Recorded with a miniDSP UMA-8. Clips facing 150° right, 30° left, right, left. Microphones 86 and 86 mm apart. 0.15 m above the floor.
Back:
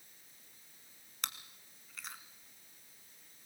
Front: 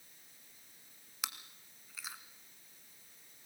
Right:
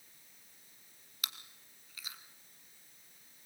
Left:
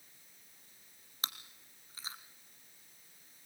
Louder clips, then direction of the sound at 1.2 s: Even, left 3 dB; 115° left.